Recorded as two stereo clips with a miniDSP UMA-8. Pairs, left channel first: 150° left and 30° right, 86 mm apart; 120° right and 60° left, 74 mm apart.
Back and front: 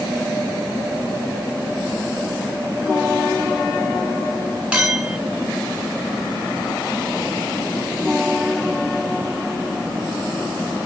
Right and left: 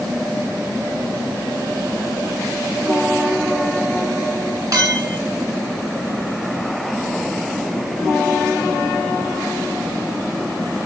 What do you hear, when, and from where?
4.7 s a clink: 45° left, 1.7 m